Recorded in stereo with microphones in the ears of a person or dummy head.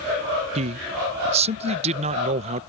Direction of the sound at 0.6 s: 35° right (ahead or behind).